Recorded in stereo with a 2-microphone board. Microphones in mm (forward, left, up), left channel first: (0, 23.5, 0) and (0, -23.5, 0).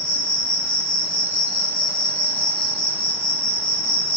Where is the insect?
20° left (ahead or behind), 1.0 m.